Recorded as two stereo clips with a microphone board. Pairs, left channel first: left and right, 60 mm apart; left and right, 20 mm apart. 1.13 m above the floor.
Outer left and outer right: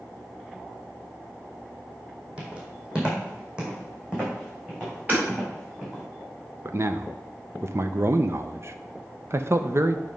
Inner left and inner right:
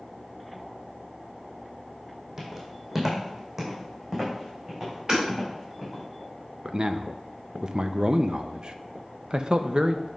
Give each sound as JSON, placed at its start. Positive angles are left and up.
{"t": 2.4, "sound": "footsteps", "side_deg": -20, "distance_m": 2.5}
{"t": 5.1, "sound": "hammering", "side_deg": -30, "distance_m": 4.0}
{"t": 6.7, "sound": "a man speaking", "side_deg": -45, "distance_m": 0.5}